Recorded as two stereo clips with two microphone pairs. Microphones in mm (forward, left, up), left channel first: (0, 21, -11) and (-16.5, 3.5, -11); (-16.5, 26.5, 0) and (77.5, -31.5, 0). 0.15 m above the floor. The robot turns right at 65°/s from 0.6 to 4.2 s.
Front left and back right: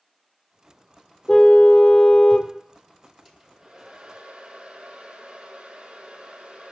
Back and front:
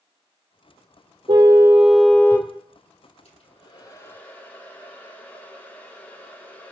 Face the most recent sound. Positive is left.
turn(degrees=-140)